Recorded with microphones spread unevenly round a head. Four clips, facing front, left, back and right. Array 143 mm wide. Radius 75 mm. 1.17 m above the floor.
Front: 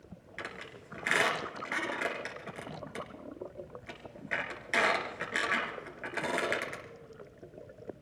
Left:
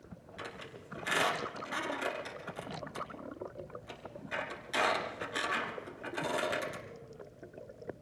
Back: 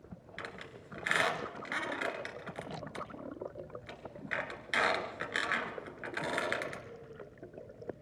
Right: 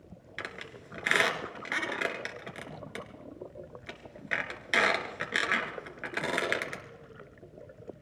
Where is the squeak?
70° right, 3 m.